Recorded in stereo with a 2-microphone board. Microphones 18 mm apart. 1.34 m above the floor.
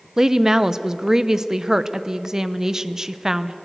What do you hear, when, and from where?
0.2 s a woman speaking: 25° right (ahead or behind), 0.9 m